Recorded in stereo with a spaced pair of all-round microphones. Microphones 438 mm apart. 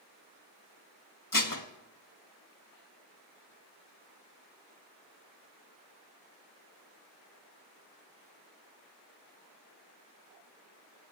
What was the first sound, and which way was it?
Dishes clattering, 45° left (ahead or behind).